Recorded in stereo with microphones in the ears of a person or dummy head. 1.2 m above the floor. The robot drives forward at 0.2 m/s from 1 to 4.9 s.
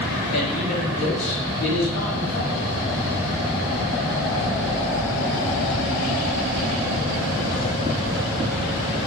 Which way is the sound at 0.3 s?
65° left (ahead or behind).